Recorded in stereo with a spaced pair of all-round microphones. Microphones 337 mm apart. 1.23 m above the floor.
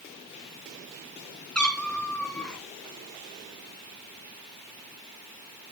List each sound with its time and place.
1.6 s a cat meowing: centre (ahead or behind), 3 m